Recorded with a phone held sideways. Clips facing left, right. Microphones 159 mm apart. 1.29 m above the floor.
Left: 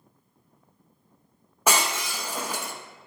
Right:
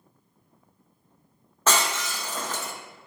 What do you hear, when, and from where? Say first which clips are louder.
1.7 s breaking glass: even; 15° left (ahead or behind), 0.6 m